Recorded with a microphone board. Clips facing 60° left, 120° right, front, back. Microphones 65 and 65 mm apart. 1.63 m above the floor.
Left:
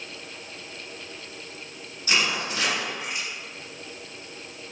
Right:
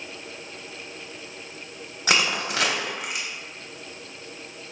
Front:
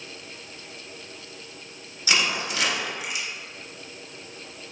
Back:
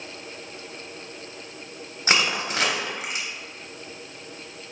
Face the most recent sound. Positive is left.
turn(degrees=-130)